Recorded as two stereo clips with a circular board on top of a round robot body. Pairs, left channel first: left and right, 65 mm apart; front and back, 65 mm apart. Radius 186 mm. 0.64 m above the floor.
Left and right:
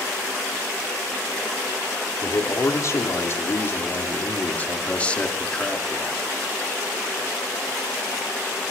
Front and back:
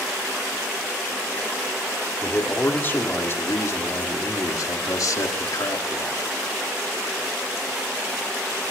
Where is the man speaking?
60° left, 3 m; by 6.3 s straight ahead, 2.5 m.